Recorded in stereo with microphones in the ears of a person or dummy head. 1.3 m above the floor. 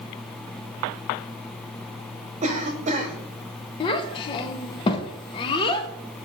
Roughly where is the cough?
Right.